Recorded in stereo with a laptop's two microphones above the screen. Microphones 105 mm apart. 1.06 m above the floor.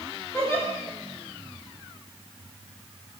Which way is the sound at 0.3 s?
25° left (ahead or behind).